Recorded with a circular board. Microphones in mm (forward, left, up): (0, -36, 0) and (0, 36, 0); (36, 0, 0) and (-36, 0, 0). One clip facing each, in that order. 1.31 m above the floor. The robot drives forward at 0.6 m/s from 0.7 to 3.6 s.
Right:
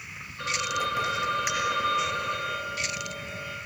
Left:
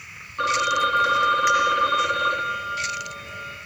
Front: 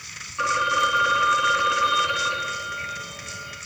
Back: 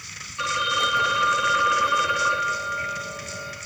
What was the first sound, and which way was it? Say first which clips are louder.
A phone ringing: left 9 dB, front 3 dB; 75° left.